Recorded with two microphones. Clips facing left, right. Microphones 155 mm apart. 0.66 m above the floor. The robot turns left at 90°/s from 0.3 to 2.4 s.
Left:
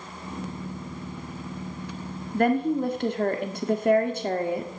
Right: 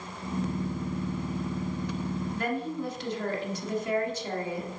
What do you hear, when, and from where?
2.3 s a woman speaking: 55° left (ahead or behind), 1.4 m